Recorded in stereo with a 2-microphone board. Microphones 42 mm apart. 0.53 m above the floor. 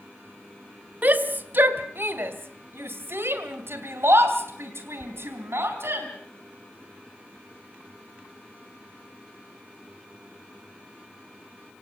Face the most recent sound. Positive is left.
turn(degrees=-75)  # may be behind; listen again after turning